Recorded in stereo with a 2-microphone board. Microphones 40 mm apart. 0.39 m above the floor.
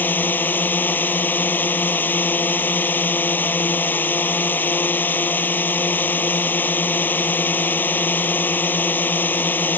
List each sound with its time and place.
0.0 s a drone: 55° left (ahead or behind)